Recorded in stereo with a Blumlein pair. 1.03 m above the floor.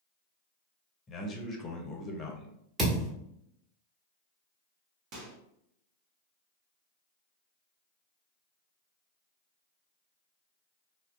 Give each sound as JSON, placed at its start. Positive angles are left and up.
{"t": 1.1, "sound": "a man speaking", "azimuth_deg": 25, "distance_m": 0.7}
{"t": 2.8, "sound": "a thud", "azimuth_deg": -15, "distance_m": 1.2}
{"t": 5.1, "sound": "a microwave", "azimuth_deg": -35, "distance_m": 0.9}